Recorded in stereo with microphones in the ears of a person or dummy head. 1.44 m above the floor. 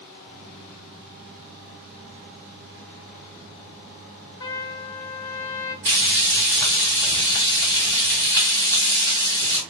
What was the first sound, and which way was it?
A trumpet, 30° left (ahead or behind).